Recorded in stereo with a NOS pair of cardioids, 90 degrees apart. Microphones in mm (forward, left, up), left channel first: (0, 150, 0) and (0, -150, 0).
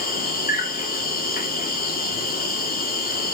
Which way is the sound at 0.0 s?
30° left.